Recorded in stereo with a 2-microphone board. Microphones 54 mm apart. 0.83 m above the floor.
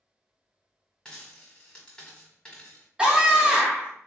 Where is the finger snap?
I don't hear a finger snap.